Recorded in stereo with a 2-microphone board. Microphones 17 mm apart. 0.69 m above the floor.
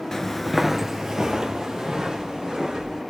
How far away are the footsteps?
About 0.7 m.